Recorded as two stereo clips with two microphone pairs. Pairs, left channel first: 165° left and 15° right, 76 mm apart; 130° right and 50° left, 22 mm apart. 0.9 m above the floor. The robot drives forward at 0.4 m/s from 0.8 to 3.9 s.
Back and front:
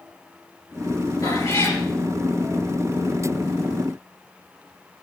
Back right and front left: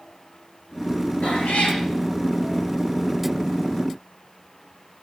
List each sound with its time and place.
1.2 s a cat meowing: 155° right, 6.5 m